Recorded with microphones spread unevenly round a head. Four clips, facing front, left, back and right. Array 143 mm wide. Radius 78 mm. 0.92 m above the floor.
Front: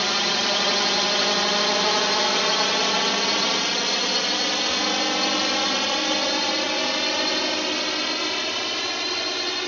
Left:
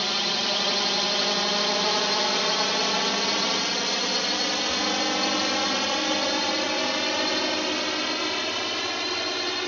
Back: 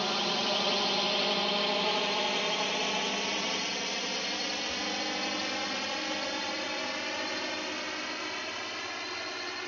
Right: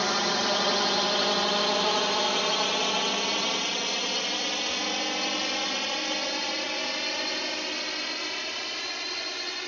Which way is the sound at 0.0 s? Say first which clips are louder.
Right 3 dB, front 6 dB; 40° right.